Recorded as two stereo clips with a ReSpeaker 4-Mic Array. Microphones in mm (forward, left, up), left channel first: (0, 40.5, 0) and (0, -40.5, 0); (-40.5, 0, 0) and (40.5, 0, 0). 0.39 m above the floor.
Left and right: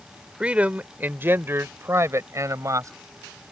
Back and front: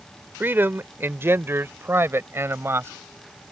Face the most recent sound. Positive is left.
turn(degrees=-55)